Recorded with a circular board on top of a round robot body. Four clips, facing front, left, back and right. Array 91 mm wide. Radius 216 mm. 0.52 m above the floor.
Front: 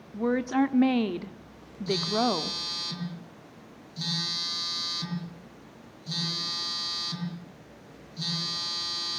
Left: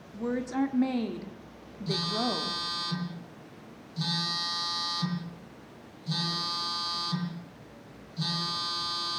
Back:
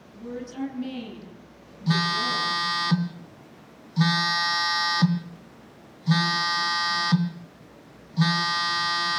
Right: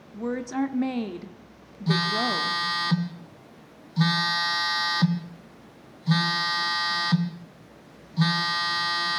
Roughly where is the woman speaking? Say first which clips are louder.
Right 2 dB, front 9 dB; ahead.